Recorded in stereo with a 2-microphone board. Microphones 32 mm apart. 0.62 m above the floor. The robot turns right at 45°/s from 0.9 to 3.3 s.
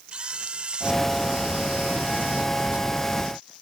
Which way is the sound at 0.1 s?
140° right.